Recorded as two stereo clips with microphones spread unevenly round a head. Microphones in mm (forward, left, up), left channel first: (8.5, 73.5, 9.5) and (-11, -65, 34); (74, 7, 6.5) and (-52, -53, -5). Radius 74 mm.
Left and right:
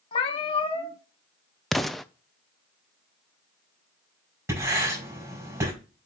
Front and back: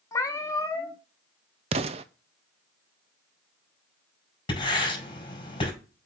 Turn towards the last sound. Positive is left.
turn(degrees=-30)